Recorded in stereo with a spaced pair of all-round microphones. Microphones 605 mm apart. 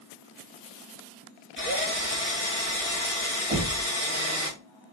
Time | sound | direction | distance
1.6 | a drill | 20° left (ahead or behind) | 1.5 m
3.5 | knocking | 75° right (ahead or behind) | 3.5 m